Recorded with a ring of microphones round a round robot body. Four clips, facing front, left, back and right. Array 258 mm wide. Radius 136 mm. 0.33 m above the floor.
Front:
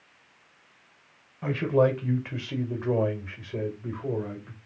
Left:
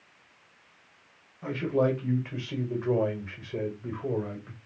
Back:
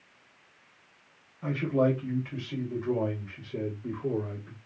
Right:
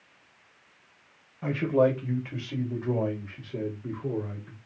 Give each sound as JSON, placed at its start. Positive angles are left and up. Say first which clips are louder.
{"t": 1.4, "sound": "a man speaking", "louder": "right 3 dB, front 3 dB", "azimuth_deg": -30, "distance_m": 1.3}